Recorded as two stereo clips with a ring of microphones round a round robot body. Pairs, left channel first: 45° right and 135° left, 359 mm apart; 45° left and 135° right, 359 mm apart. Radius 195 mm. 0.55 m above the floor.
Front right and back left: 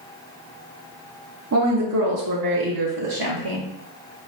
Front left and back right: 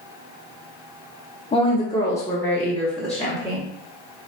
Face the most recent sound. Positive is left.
turn(degrees=135)